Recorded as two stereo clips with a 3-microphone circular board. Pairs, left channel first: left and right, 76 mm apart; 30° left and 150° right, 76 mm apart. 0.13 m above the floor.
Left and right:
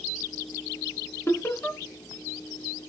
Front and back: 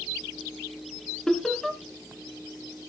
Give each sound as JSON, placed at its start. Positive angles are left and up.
{"t": 1.3, "sound": "laughter", "azimuth_deg": 110, "distance_m": 2.0}